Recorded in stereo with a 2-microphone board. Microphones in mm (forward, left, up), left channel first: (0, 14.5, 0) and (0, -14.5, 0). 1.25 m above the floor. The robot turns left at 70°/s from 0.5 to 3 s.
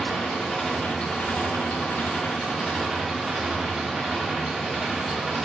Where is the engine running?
170° left, 2 m; by 5.5 s 5° right, 2 m.